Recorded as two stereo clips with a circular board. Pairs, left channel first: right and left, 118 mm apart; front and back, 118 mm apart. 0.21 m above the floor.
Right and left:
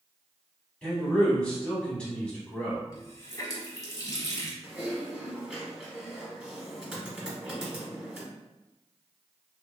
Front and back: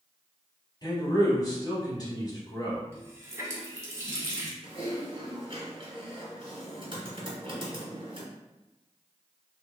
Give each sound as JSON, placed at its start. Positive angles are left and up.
{"t": 0.8, "sound": "a man speaking", "azimuth_deg": -15, "distance_m": 1.2}
{"t": 2.9, "sound": "a running tap", "azimuth_deg": -130, "distance_m": 0.8}
{"t": 4.6, "sound": "typing on a keyboard", "azimuth_deg": 170, "distance_m": 1.2}